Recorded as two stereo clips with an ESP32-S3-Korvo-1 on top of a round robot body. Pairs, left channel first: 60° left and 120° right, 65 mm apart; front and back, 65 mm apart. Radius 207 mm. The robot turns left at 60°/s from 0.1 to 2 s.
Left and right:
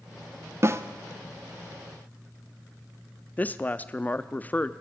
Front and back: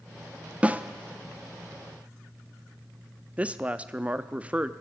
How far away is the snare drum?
About 1.3 m.